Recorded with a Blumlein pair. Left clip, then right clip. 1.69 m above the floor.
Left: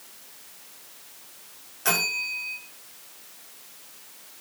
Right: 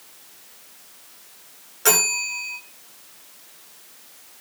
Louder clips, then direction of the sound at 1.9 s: Right 4 dB; 45° right.